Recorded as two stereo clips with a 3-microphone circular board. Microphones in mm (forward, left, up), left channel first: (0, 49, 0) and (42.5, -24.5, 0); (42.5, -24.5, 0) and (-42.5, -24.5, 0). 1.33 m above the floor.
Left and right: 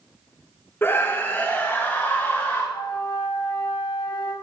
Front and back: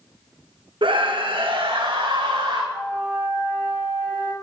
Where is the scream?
175° right, 0.9 m; by 2.6 s 170° right, 3 m.